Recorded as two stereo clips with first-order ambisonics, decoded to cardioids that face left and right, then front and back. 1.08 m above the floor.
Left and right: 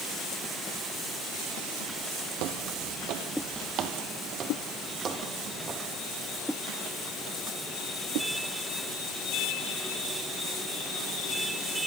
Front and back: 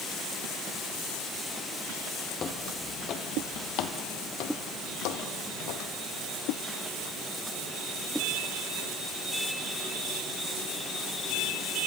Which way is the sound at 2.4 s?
65° right.